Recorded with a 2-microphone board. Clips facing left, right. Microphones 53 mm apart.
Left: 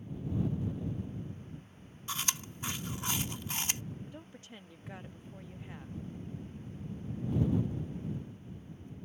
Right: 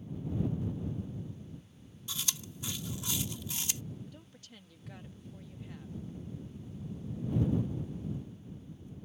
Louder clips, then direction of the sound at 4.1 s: Left 4 dB; 25° left (ahead or behind).